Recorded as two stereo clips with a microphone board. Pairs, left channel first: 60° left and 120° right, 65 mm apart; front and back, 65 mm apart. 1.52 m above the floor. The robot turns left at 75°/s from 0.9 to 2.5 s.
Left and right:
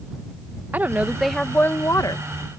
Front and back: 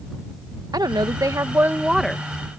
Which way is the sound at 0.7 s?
175° left.